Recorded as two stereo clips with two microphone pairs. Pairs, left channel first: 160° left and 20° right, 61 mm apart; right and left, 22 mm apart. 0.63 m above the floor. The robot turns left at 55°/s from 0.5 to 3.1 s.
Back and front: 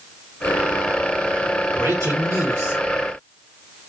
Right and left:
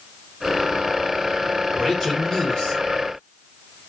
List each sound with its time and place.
1.7 s a man speaking: 10° right, 3.5 m; by 2.8 s 70° right, 3.5 m